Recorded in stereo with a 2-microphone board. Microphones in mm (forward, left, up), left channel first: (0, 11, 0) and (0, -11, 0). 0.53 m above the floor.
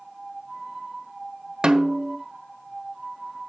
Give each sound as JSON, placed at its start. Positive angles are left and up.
{"t": 1.6, "sound": "a snare drum", "side_deg": -45, "distance_m": 0.9}